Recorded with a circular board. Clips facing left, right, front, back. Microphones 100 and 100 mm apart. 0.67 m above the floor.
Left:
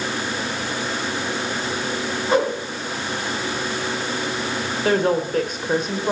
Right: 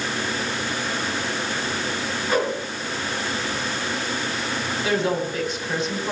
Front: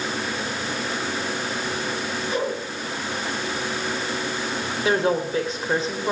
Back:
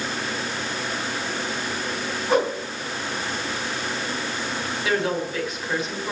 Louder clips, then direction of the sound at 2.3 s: Left 4 dB, back 6 dB; 150° left.